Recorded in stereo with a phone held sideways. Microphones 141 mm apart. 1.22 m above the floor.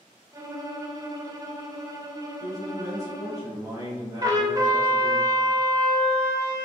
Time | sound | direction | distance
0.3 | a violin | 25° right (ahead or behind) | 0.5 m
2.4 | a man speaking | 25° right (ahead or behind) | 1.1 m
4.2 | a trumpet | 25° right (ahead or behind) | 0.6 m